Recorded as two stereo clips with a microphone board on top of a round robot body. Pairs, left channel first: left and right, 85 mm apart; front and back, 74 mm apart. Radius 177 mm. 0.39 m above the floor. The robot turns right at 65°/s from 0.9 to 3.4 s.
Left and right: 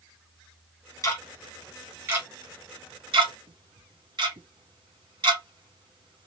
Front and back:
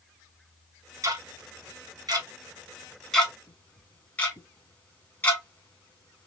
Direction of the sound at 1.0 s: 140° left.